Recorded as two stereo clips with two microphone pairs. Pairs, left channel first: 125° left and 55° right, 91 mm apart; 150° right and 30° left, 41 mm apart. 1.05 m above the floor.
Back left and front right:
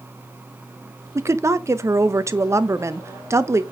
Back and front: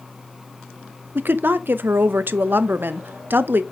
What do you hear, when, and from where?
1.1 s a woman speaking: straight ahead, 0.6 m